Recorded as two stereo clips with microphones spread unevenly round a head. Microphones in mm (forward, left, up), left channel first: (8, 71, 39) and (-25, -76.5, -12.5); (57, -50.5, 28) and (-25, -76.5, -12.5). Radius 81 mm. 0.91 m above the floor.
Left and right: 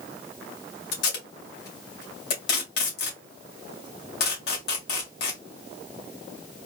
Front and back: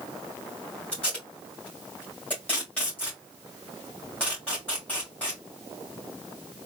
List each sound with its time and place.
0.9 s tape being pulled: 95° left, 2 m